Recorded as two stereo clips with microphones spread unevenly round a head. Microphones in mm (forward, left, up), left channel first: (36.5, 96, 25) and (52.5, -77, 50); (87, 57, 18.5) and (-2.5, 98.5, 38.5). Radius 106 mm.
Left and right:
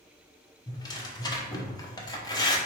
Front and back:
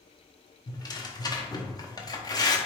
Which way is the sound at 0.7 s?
25° left.